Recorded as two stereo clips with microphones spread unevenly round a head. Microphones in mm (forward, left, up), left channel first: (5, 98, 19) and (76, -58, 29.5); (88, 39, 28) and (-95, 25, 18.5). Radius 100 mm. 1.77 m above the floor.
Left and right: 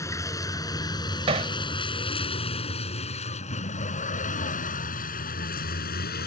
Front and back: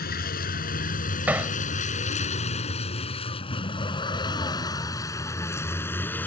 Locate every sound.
0.0 s a vehicle: 40° left; by 6.3 s 85° left
1.3 s hammering: 95° right